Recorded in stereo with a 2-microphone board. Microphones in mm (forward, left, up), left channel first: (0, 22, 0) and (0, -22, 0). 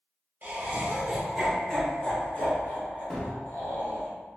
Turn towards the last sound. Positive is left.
turn(degrees=20)  # may be behind; listen again after turning